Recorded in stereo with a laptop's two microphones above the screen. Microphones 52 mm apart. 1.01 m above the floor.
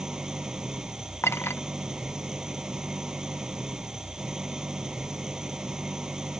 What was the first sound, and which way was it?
An engine running, 15° right (ahead or behind).